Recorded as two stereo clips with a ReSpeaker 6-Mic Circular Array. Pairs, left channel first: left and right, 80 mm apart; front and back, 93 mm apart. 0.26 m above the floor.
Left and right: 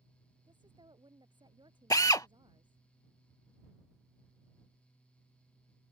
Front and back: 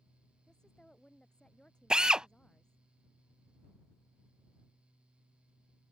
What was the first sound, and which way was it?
A woman speaking, 80° right.